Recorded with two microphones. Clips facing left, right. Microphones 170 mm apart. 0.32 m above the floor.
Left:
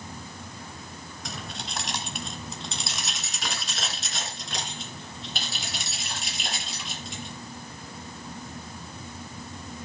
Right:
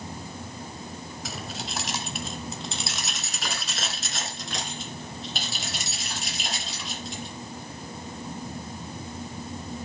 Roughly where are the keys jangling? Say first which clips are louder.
Right 1 dB; centre.